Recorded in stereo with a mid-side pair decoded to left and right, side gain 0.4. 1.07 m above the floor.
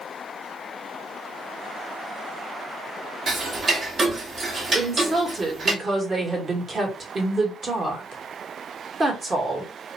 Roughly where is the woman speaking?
Ahead right.